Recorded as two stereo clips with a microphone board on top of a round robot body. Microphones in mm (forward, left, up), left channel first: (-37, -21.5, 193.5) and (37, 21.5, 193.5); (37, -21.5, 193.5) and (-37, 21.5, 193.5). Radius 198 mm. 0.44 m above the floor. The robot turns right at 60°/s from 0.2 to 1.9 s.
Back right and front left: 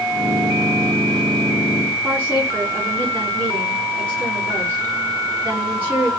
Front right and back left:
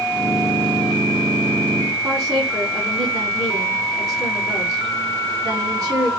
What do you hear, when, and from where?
2.0 s a woman speaking: 95° left, 5.5 m